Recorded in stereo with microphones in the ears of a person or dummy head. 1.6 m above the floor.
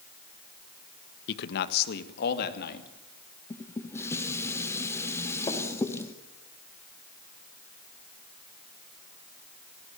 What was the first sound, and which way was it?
A man speaking, 60° left (ahead or behind).